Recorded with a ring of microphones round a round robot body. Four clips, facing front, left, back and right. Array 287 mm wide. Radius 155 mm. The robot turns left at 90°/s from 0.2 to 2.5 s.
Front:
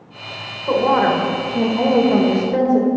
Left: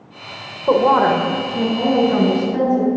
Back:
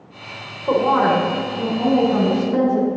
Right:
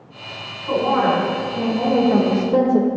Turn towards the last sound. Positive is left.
turn(degrees=-65)